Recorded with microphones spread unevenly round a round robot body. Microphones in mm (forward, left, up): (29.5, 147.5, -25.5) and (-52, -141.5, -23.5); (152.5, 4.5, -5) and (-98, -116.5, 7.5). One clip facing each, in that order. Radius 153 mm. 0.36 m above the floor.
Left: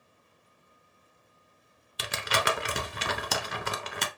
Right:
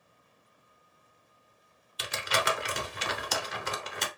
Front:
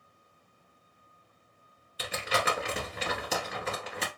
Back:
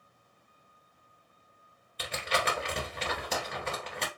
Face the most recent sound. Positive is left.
turn(degrees=110)